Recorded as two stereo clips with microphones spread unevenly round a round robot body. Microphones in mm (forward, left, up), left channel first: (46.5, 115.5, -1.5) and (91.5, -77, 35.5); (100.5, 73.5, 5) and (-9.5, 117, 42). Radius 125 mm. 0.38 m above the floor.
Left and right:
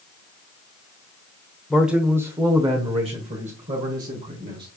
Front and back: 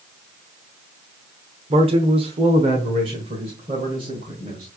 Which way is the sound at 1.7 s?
170° left.